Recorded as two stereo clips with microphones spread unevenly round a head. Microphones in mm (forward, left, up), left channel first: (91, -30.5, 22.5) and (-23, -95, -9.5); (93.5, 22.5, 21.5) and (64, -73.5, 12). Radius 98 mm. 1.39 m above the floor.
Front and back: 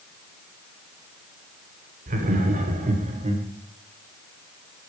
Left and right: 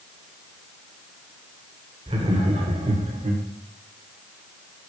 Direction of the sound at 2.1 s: 160° right.